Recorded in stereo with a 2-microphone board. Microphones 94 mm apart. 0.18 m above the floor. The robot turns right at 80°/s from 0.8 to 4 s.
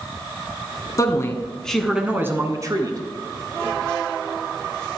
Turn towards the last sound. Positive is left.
turn(degrees=-5)